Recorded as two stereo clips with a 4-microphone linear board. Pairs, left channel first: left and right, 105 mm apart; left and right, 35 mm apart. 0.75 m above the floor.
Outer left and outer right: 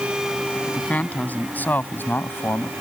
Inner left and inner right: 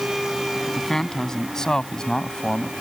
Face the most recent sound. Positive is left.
turn(degrees=20)  # may be behind; listen again after turning